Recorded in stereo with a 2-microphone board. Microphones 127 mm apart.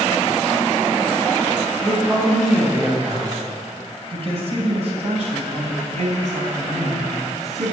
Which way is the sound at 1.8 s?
15° right (ahead or behind).